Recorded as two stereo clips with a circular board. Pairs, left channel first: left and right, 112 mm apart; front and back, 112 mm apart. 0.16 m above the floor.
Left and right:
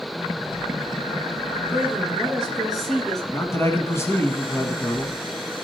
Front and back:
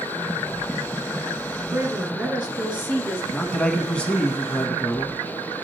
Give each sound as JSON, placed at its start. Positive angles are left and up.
{"t": 1.7, "sound": "a woman speaking", "azimuth_deg": -160, "distance_m": 1.5}
{"t": 3.3, "sound": "a man speaking", "azimuth_deg": 70, "distance_m": 1.2}